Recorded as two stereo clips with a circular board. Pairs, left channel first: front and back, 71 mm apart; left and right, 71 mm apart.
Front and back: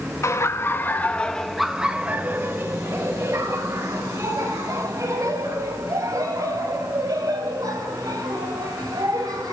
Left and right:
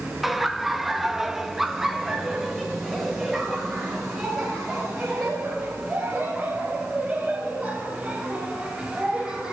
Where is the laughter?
5° right, 1.1 m; by 9.5 s straight behind, 4.5 m.